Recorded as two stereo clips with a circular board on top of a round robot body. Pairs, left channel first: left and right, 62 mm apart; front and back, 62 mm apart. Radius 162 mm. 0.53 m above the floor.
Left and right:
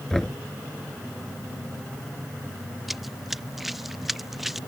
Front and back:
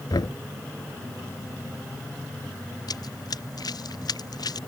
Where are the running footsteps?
Straight ahead.